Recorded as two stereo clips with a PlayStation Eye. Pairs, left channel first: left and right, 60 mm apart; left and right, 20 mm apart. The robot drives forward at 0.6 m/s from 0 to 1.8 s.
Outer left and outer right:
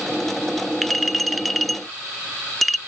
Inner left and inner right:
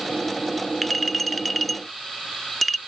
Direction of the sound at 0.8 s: Centre (ahead or behind).